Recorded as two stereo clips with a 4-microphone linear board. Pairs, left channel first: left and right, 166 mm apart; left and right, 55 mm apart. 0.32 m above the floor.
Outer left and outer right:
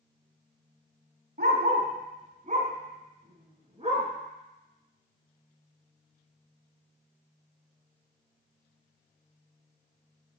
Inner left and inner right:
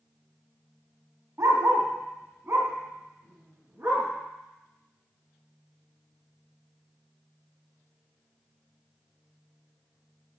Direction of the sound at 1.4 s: 65° right (ahead or behind).